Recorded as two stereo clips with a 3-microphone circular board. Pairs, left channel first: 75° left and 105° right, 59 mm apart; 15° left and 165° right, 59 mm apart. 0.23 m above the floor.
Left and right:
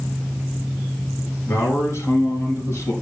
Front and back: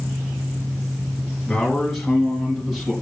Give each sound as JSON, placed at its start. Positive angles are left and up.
{"t": 1.5, "sound": "a man speaking", "azimuth_deg": 105, "distance_m": 3.5}